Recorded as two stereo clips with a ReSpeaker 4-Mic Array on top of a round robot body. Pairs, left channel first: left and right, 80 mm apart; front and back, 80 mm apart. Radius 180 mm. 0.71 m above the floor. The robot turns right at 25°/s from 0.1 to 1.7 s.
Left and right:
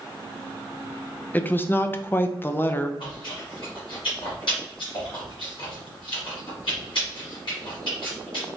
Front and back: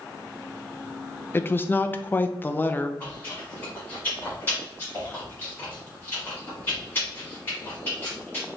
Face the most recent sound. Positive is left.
turn(degrees=65)